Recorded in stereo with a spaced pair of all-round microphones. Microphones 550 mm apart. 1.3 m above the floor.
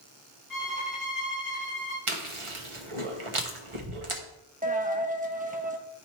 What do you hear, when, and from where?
0.5 s a violin: 35° left (ahead or behind), 4 m
2.1 s chewing: 60° right (ahead or behind), 1.1 m
4.6 s a dropped coin: 15° right (ahead or behind), 0.8 m